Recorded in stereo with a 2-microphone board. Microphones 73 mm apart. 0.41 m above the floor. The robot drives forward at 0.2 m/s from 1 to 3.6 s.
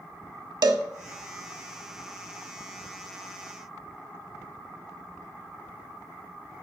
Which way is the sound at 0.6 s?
80° right.